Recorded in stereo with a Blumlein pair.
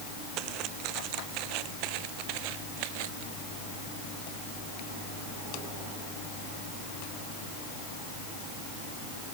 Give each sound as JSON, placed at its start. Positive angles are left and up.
{"t": 0.4, "sound": "footsteps", "azimuth_deg": -40}